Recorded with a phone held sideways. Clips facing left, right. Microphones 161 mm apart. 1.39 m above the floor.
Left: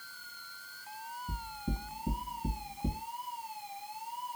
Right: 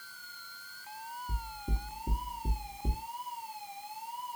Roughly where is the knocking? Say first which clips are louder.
Left 6 dB; left.